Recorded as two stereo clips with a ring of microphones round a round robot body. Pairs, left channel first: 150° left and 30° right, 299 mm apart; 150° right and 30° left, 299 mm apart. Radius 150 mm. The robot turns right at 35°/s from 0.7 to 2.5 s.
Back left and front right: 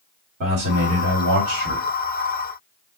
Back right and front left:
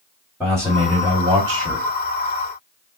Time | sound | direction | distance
0.4 | a man speaking | 65° right | 1.3 m